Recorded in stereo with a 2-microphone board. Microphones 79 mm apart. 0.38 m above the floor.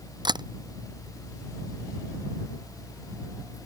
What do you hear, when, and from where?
0.2 s a camera shutter: 65° right (ahead or behind)